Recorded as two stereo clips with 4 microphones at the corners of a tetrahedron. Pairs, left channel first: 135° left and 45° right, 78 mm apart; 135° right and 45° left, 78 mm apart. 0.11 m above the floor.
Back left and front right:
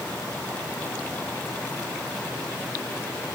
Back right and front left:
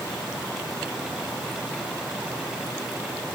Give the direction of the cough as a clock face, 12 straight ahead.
I don't hear a cough.